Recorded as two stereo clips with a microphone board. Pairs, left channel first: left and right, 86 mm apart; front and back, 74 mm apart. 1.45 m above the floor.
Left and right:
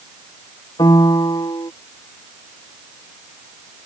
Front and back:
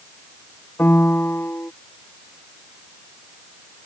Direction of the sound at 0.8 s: 60° left.